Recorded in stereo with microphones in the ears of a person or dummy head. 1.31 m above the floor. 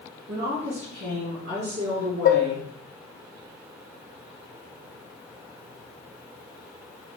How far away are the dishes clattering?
About 0.6 m.